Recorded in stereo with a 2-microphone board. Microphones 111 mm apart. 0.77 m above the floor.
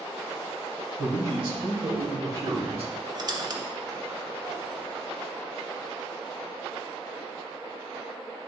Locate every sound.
1.0 s a man speaking: 60° right (ahead or behind), 3 m; by 2.9 s 65° right (ahead or behind), 1.5 m
3.1 s a squeak: 40° right (ahead or behind), 0.7 m